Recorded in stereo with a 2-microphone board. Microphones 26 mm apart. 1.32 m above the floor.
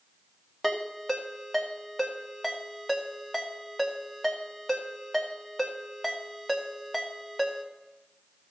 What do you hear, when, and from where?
0.6 s a ringtone: centre (ahead or behind), 1.8 m